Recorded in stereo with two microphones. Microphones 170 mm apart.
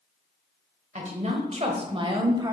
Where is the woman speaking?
45° right (ahead or behind), 1.1 m; by 2.5 s 20° right (ahead or behind), 1.2 m.